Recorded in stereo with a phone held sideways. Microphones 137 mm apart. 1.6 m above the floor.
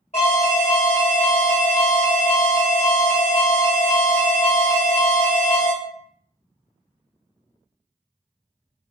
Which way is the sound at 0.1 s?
55° left (ahead or behind).